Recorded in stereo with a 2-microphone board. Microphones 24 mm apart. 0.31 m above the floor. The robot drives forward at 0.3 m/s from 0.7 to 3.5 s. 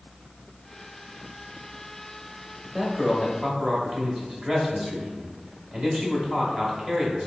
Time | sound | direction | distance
2.6 | a man speaking | 25° right (ahead or behind) | 0.9 m